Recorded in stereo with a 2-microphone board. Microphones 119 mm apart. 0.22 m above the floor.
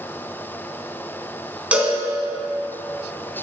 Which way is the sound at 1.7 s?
10° right (ahead or behind).